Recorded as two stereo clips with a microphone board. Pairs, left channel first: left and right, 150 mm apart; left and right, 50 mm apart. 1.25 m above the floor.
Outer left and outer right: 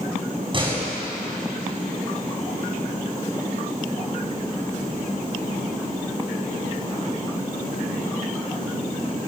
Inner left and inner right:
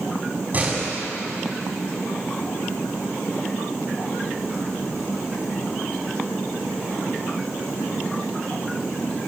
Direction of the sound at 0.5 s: 35° right (ahead or behind).